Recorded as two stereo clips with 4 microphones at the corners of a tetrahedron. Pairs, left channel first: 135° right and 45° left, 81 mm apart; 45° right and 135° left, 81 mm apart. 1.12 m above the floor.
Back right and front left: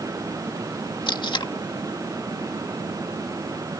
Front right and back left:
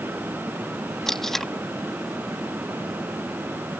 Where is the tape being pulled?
130° right.